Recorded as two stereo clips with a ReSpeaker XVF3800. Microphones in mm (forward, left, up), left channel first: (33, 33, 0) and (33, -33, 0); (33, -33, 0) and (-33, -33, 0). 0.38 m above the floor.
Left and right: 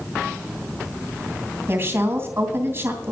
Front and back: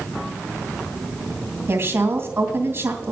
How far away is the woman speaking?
About 2.5 m.